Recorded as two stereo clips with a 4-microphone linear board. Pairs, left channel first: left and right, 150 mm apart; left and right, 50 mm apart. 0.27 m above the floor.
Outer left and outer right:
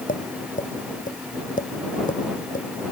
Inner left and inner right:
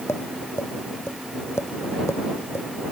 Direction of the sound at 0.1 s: 65° left (ahead or behind).